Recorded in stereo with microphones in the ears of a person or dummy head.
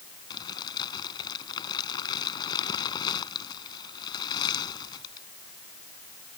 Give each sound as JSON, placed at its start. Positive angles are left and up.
{"t": 0.3, "sound": "crumpling", "side_deg": 25}